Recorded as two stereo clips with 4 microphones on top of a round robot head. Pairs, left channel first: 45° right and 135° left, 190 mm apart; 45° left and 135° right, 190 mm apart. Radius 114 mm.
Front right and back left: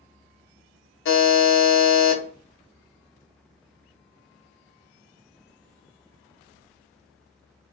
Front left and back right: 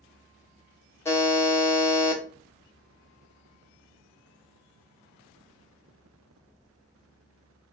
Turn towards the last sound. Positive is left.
turn(degrees=-30)